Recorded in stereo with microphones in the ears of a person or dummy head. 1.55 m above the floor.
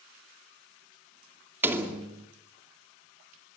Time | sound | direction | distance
1.6 | a door slam | 20° right (ahead or behind) | 2.5 m